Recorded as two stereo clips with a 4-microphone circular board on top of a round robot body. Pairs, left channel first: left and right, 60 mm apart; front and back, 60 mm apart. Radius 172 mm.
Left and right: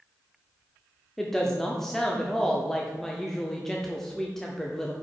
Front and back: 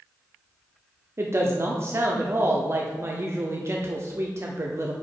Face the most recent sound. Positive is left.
turn(degrees=175)